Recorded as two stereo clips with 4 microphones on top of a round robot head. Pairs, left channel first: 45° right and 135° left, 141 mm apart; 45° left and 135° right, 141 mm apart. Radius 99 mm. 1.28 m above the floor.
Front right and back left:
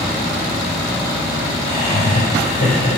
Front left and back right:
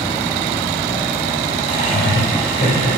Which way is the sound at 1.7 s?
Straight ahead.